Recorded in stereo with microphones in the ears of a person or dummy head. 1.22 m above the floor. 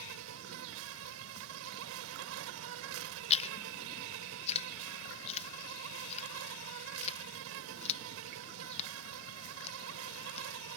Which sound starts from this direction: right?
An insect, at 0.0 s.